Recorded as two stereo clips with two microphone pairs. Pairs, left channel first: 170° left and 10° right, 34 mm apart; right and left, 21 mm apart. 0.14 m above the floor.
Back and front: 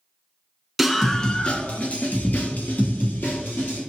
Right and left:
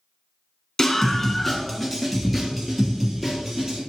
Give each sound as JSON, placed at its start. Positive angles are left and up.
{"t": 0.8, "sound": "a scream", "azimuth_deg": -95, "distance_m": 1.5}